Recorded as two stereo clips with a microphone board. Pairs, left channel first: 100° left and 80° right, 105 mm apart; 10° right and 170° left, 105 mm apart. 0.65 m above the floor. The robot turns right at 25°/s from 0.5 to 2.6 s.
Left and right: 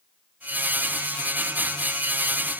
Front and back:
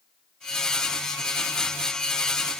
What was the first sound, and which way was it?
Only background noise.